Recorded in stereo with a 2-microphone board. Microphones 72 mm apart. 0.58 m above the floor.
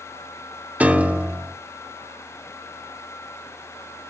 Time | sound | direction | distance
0.8 | a piano | 20° right (ahead or behind) | 0.6 m